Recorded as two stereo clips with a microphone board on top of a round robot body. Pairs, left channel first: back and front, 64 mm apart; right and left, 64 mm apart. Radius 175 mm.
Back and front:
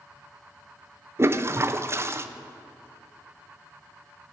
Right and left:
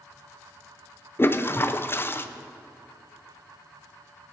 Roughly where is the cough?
No cough in this recording.